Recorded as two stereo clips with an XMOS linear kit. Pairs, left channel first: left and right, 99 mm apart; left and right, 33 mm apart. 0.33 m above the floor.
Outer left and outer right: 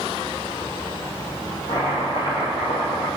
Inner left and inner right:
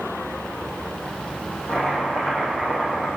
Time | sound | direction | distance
1.7 | chopping | 55° left (ahead or behind) | 4 m